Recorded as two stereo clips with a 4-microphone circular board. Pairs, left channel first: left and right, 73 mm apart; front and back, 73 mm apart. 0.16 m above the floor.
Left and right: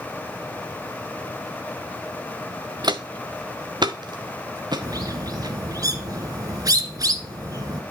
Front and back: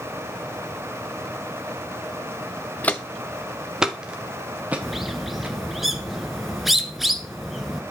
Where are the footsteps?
70° right, 0.8 m; by 5.6 s 115° right, 2.5 m.